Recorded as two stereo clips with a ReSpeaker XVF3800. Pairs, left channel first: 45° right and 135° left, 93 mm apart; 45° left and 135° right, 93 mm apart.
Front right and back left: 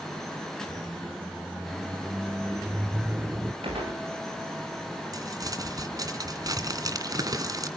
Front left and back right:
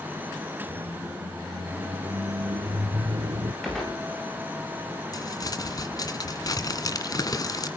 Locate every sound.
0.7 s a squeak: 155° right, 1.6 m
3.6 s a gunshot: 130° left, 8.5 m
5.1 s crumpling: 90° left, 2.0 m